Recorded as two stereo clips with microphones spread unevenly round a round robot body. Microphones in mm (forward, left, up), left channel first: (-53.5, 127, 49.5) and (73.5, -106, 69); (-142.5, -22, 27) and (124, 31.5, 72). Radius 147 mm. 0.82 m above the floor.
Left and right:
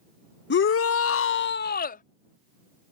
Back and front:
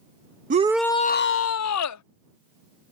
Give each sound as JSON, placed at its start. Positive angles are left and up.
{"t": 0.5, "sound": "a shout", "azimuth_deg": 75}